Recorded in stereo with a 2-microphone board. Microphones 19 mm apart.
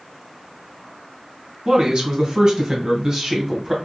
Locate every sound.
1.6 s a man speaking: 50° right (ahead or behind), 1.8 m; by 3.7 s 15° right (ahead or behind), 1.1 m